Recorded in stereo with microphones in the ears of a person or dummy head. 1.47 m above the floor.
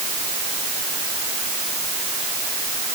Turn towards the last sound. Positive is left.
No sound to turn to.